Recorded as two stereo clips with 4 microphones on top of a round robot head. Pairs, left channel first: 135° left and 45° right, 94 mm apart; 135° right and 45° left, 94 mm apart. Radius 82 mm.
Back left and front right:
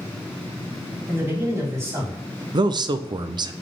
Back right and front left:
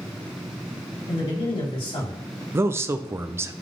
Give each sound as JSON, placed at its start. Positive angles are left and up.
{"t": 1.1, "sound": "a man speaking", "azimuth_deg": -110, "distance_m": 3.5}
{"t": 2.5, "sound": "a man speaking", "azimuth_deg": -15, "distance_m": 0.6}